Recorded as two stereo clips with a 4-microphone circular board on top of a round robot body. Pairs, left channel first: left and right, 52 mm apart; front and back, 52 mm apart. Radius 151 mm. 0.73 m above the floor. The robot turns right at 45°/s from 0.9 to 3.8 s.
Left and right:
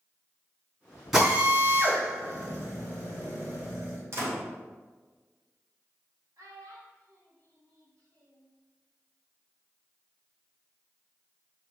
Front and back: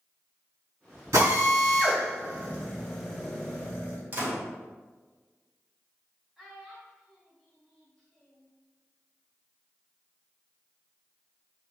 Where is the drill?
175° right, 3 m; by 4.0 s 55° right, 3 m.